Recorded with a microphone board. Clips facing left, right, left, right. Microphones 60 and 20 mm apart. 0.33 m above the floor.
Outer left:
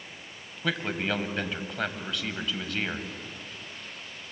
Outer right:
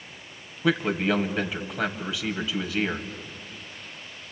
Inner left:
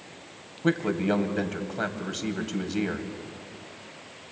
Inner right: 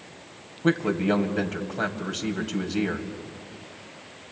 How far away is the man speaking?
About 2 m.